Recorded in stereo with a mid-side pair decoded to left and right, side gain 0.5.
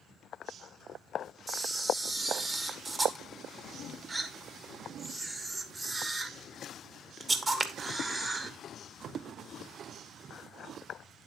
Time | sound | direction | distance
1.5 | a camera shutter | 30° right | 1.7 m